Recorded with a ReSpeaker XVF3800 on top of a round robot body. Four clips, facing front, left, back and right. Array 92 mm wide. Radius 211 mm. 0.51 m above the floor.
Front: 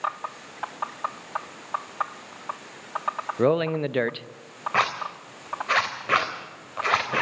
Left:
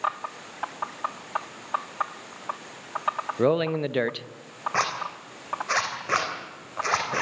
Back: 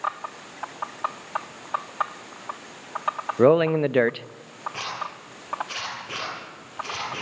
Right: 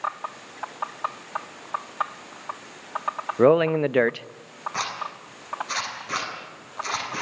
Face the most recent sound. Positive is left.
turn(degrees=30)